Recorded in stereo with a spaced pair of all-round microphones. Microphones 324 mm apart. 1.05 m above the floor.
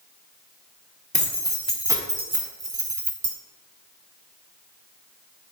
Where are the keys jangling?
25° left (ahead or behind), 0.7 m; by 3.3 s 75° right (ahead or behind), 0.8 m.